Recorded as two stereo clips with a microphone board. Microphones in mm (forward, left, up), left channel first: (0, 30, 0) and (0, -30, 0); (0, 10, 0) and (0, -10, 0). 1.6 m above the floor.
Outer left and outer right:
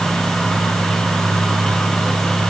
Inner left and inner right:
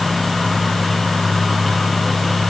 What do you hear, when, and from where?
Only background noise.